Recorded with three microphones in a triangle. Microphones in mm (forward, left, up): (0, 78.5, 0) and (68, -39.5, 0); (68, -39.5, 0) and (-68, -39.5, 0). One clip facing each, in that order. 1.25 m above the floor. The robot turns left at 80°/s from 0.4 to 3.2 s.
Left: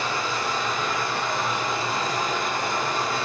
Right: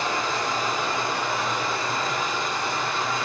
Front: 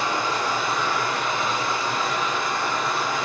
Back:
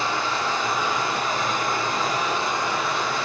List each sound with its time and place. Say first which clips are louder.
0.0 s running water: right 1 dB, front 1 dB; 70° right, 1.1 m; by 3.3 s 70° left, 1.1 m